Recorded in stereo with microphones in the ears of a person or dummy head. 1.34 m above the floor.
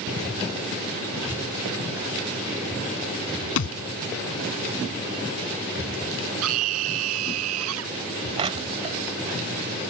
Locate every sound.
3.6 s a thud: 75° left (ahead or behind)
6.4 s a scream: 85° right
8.4 s crushing: 35° right (ahead or behind)